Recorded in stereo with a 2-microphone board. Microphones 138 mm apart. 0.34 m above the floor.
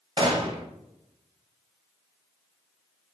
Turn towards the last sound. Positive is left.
turn(degrees=-40)  # may be behind; listen again after turning